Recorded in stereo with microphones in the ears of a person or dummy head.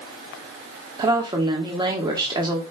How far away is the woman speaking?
About 1.0 m.